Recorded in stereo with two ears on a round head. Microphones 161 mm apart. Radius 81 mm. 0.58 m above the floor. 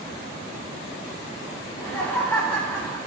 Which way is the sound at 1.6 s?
5° left (ahead or behind).